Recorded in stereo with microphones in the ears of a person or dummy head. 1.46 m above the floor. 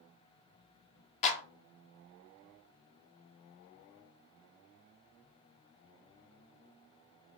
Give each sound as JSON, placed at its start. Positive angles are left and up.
{"t": 1.2, "sound": "a clap", "side_deg": 40, "distance_m": 0.8}